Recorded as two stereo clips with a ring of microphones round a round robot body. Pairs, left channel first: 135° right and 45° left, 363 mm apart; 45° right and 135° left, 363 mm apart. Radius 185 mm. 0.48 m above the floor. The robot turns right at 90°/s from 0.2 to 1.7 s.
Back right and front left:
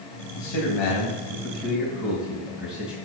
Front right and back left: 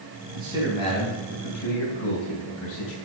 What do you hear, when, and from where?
0.3 s a man speaking: 165° right, 2.5 m; by 3.0 s 40° right, 2.5 m